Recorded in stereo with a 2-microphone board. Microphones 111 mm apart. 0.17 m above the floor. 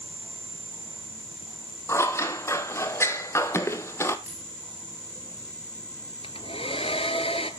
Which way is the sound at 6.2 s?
55° left (ahead or behind).